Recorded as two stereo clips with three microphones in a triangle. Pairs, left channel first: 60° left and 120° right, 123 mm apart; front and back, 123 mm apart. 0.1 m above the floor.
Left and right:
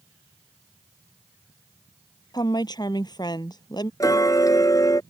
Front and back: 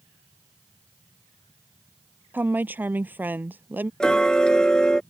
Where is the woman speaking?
105° left.